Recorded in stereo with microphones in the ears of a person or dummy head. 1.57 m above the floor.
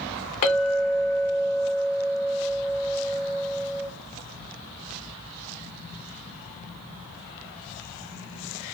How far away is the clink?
About 0.7 m.